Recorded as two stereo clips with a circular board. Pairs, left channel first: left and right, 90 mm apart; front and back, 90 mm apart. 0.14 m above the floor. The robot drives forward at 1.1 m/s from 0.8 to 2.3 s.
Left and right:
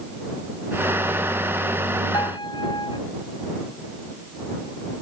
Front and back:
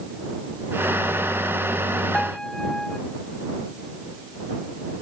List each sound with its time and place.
2.1 s a piano: 75° left; by 3.0 s 80° left